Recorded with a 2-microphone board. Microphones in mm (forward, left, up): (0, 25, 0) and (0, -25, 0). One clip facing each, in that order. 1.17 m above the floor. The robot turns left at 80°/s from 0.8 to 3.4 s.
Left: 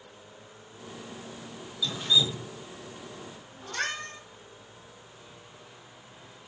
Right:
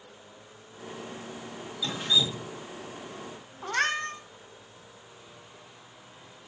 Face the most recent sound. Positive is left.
turn(degrees=-50)  # may be behind; listen again after turning